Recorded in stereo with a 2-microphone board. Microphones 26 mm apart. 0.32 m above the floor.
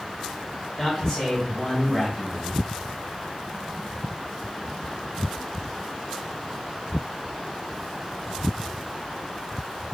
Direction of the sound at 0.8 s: 25° left (ahead or behind).